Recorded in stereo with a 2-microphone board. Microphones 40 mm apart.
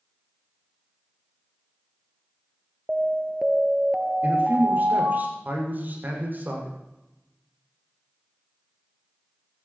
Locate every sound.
2.9 s an alarm: 15° right (ahead or behind), 1.2 m
4.2 s a man speaking: 50° right (ahead or behind), 6.5 m